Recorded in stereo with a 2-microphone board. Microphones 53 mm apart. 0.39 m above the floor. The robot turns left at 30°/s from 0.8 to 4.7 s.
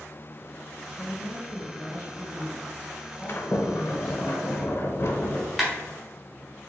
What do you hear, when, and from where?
1.0 s a woman speaking: 120° left, 1.8 m; by 4.3 s 20° left, 1.8 m
3.3 s a sliding door: 115° left, 0.5 m; by 5.5 s 75° left, 0.5 m
5.6 s a clap: centre (ahead or behind), 1.2 m